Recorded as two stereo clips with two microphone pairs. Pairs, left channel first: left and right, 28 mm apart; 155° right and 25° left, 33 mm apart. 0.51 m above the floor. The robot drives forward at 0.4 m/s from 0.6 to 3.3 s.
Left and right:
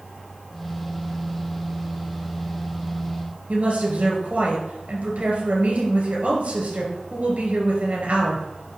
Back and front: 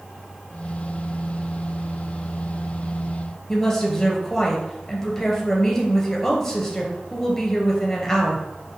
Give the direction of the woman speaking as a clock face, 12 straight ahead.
3 o'clock.